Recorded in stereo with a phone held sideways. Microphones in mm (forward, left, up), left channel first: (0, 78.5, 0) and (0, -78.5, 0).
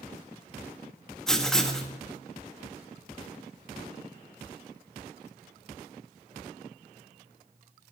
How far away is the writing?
About 1.9 m.